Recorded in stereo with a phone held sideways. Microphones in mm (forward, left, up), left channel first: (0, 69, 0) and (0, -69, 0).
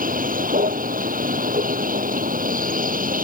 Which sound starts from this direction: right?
A vehicle, at 0.0 s.